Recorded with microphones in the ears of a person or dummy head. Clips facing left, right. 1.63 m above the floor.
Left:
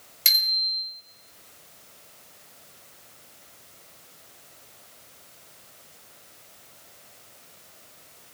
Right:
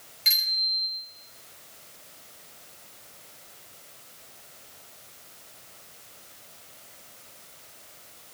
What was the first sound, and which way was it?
A bicycle bell, 55° left (ahead or behind).